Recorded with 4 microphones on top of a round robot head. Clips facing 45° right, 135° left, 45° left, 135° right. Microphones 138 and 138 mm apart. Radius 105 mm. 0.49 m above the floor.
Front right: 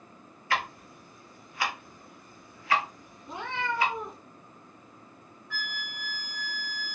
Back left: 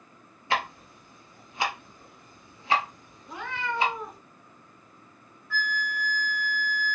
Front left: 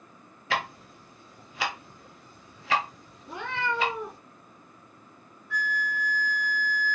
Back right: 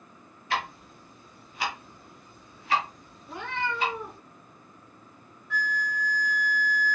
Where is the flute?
115° right, 1.2 m.